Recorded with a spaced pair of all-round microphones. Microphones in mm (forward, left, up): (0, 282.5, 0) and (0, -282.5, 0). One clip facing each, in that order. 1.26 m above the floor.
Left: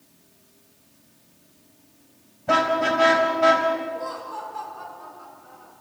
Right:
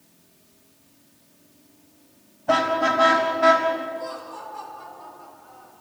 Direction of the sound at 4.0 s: 75° left (ahead or behind).